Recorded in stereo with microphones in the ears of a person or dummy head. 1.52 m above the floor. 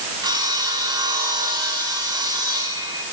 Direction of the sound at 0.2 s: 20° right (ahead or behind).